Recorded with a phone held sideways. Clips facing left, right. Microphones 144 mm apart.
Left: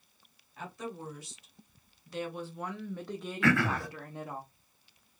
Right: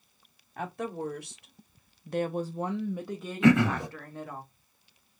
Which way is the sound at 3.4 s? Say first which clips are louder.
Right 6 dB; 20° right (ahead or behind).